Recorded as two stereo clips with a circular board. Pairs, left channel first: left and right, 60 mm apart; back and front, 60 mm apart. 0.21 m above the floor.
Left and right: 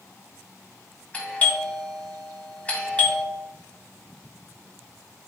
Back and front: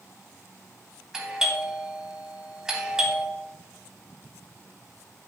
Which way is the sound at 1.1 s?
70° left.